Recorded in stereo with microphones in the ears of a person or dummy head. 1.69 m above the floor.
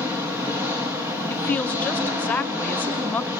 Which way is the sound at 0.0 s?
10° right (ahead or behind).